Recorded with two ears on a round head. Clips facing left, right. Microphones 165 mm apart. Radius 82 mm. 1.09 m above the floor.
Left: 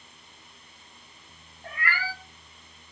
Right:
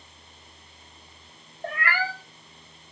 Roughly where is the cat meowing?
Right.